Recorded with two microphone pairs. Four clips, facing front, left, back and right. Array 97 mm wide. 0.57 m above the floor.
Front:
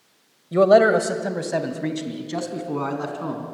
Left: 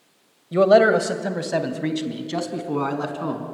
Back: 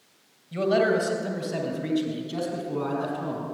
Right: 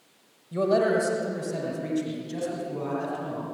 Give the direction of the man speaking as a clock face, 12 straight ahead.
11 o'clock.